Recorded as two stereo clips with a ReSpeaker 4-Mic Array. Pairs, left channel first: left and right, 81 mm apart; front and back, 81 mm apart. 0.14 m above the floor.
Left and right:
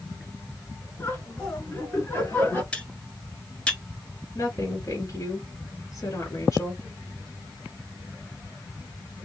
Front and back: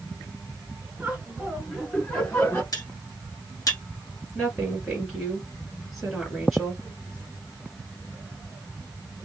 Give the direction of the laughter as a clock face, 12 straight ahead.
8 o'clock.